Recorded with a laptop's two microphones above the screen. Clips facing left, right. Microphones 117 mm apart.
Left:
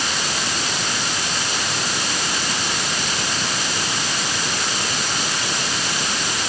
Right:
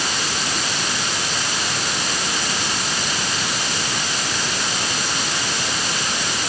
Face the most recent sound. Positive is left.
No sound to turn to.